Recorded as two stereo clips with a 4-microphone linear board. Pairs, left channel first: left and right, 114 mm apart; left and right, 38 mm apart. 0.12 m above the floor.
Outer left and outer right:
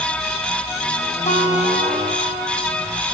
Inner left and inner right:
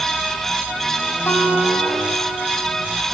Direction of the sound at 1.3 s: 80° left.